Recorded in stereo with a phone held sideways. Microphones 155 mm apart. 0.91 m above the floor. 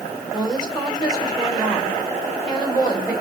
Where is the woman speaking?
25° left (ahead or behind), 4 m.